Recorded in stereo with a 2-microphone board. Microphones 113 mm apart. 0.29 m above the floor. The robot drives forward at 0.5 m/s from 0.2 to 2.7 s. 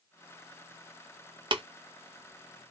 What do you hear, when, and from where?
1.5 s tapping: 45° right (ahead or behind), 0.5 m; by 1.6 s 50° right (ahead or behind), 0.5 m